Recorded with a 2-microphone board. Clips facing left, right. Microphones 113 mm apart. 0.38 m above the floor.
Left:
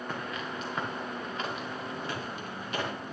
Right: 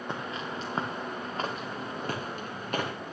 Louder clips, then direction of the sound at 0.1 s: Right 3 dB; 25° right (ahead or behind).